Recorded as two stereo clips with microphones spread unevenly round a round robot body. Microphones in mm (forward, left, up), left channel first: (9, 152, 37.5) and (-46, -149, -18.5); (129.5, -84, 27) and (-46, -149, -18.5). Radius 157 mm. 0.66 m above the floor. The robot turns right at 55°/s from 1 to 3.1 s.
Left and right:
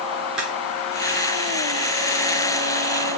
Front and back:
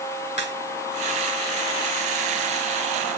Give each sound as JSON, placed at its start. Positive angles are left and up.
{"t": 0.4, "sound": "a crack", "azimuth_deg": -15, "distance_m": 6.0}